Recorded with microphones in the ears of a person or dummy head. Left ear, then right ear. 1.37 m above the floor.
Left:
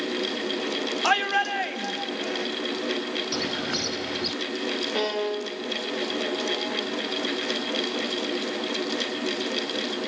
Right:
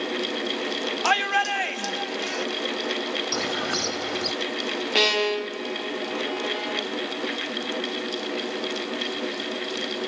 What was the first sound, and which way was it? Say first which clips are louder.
A shout: right 1 dB; 10° right (ahead or behind).